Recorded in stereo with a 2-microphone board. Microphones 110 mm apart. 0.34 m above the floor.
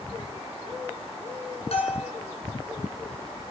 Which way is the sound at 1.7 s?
70° left (ahead or behind).